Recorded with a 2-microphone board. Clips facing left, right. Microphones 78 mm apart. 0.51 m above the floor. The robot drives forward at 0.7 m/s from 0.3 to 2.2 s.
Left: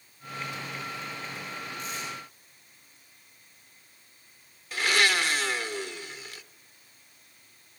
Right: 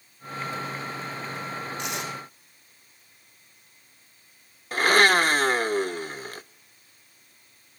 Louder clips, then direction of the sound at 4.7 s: Right 6 dB; 45° right (ahead or behind).